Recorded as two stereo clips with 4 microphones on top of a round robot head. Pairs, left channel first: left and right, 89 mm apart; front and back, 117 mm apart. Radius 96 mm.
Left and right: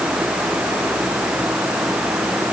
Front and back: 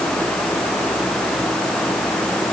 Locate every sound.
Only background noise.